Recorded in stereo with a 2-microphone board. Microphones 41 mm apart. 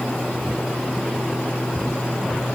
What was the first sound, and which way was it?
Only background noise.